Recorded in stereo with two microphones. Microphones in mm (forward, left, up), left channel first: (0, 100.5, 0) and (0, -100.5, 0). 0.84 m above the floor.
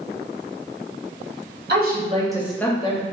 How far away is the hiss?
I don't hear a hiss.